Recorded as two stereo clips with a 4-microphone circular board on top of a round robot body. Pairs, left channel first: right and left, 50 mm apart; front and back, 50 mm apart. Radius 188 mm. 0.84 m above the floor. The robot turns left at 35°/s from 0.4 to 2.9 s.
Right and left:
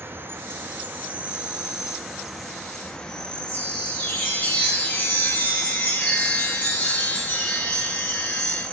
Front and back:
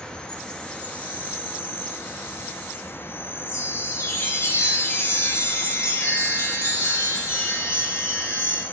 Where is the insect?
65° left, 1.0 m; by 8.7 s 20° right, 1.0 m.